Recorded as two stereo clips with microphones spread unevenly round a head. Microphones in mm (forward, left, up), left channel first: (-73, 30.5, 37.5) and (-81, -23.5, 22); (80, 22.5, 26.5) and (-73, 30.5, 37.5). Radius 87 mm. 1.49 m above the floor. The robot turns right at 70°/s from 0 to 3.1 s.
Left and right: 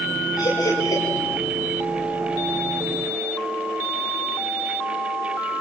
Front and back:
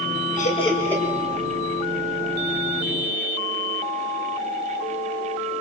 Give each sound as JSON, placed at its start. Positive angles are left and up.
{"t": 0.4, "sound": "laughter", "azimuth_deg": 35, "distance_m": 8.0}